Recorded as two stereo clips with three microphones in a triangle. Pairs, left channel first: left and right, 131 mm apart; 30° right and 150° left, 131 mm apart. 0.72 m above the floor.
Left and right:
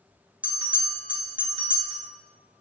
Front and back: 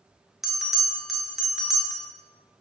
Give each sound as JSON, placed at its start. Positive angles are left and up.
{"t": 0.4, "sound": "a bell", "azimuth_deg": -120, "distance_m": 0.7}